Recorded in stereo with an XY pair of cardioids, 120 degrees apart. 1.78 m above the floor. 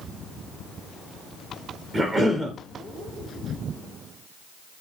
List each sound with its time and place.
1.9 s a cough: 20° right, 0.6 m